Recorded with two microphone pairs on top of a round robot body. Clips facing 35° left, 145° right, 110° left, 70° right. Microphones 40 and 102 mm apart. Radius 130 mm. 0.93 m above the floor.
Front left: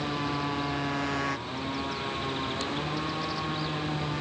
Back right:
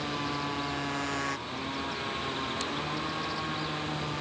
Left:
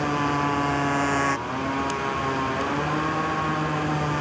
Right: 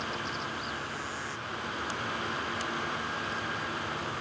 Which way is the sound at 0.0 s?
120° left.